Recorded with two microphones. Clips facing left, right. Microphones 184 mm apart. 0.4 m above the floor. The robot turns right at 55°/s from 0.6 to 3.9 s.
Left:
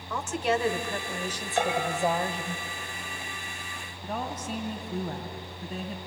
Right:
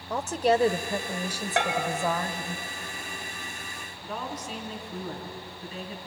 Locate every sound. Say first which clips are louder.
0.1 s a woman speaking: right 4 dB; 55° right, 1.3 m; by 2.6 s 55° left, 1.3 m
1.6 s a bell: left 1 dB; 80° right, 2 m; by 1.9 s 60° right (ahead or behind), 2 m
4.0 s a woman speaking: left 2 dB; 55° left (ahead or behind), 3 m